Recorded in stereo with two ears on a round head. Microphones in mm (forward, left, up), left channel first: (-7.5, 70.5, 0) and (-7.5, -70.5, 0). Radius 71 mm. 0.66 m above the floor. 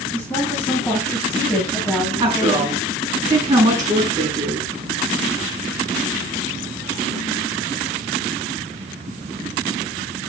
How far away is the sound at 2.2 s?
About 7 m.